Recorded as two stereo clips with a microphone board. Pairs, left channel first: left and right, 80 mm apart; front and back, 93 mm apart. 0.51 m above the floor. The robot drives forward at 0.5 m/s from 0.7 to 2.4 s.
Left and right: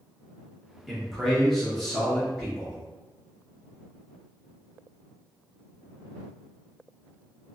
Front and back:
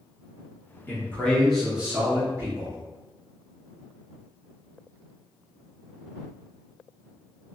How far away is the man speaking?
About 0.9 m.